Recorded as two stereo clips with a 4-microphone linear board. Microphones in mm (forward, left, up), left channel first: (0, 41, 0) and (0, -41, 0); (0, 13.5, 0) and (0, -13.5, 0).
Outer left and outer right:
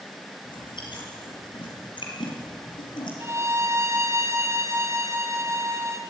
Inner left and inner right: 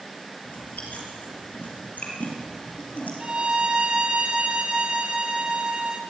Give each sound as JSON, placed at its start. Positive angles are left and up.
{"t": 0.5, "sound": "chewing", "side_deg": 70, "distance_m": 5.5}
{"t": 3.2, "sound": "a violin", "side_deg": -35, "distance_m": 2.0}